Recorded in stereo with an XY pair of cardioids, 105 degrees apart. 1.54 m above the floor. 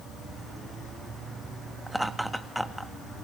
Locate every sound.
0.0 s an insect: 65° right, 5.5 m
1.9 s laughter: 5° right, 2.5 m